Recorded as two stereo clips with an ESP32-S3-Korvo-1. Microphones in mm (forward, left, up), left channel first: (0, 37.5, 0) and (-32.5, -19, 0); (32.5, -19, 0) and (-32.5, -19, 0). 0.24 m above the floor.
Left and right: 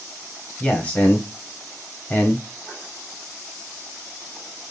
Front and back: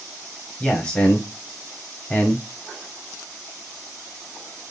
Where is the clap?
I don't hear a clap.